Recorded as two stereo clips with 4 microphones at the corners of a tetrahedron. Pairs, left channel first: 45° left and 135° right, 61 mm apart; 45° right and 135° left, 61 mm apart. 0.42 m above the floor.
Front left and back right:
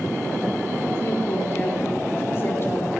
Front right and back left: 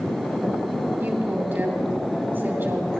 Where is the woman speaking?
85° left, 3 m.